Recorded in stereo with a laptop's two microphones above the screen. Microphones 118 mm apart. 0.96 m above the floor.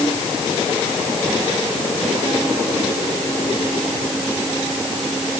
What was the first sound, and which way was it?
Only background noise.